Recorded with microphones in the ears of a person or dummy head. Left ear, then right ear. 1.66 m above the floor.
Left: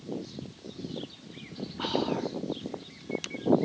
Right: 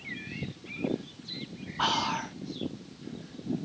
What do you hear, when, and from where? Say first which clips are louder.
1.8 s whispering: right 2 dB; 45° right (ahead or behind)